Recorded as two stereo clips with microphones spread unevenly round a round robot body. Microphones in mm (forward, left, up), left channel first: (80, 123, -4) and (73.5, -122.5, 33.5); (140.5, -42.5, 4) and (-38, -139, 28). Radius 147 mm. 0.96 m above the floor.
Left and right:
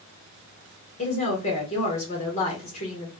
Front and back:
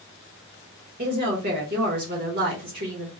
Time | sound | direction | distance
1.0 | a woman speaking | 150° left | 1.0 m